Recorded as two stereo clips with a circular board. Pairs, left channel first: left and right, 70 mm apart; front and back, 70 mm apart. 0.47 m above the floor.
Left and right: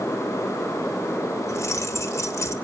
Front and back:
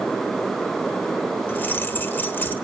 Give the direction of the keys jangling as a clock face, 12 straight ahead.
10 o'clock.